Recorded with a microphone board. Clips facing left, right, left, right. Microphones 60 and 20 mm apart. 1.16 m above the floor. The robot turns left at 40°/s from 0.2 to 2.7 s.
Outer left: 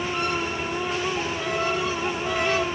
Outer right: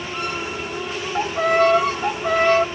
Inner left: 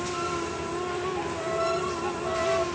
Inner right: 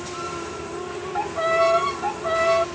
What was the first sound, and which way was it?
A violin, 70° right.